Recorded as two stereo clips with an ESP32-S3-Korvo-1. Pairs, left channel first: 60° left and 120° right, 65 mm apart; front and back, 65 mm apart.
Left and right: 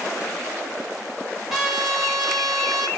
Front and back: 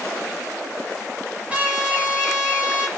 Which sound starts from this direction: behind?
A trumpet, at 1.5 s.